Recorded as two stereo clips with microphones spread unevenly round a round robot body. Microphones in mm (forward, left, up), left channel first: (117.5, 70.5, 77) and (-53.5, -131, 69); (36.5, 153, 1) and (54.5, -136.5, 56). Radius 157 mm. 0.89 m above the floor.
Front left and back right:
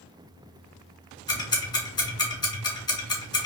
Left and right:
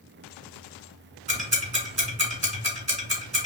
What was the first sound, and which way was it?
Ticking, 25° right.